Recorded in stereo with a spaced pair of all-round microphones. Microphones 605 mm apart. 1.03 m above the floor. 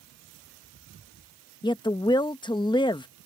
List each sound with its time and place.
1.6 s a woman speaking: 10° left (ahead or behind)